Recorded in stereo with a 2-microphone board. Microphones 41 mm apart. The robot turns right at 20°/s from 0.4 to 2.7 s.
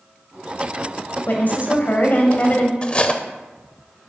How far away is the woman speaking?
About 1.3 m.